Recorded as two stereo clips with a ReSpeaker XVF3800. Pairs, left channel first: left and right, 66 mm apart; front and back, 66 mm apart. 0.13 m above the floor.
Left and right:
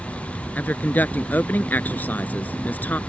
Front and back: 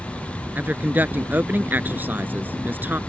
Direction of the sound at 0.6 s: 135° left.